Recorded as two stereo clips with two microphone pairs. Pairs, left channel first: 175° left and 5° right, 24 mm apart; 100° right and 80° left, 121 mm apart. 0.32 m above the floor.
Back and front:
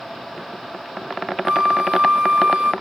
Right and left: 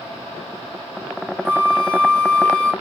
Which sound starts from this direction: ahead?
A flute, at 1.4 s.